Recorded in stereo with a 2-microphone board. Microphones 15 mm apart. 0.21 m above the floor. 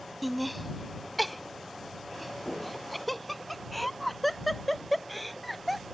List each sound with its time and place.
0.2 s laughter: centre (ahead or behind)